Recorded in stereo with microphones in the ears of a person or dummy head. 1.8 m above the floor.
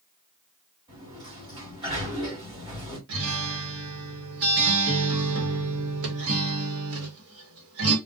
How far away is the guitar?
About 1.0 m.